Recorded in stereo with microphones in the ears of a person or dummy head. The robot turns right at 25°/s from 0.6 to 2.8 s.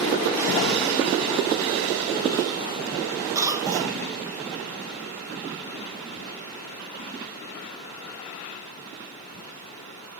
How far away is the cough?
About 1.7 m.